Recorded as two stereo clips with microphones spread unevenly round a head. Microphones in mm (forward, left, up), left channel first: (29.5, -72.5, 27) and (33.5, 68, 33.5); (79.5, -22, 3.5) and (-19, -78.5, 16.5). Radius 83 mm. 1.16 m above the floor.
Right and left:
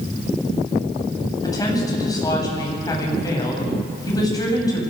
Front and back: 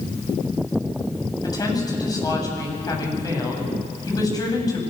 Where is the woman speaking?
25° right, 8.5 m.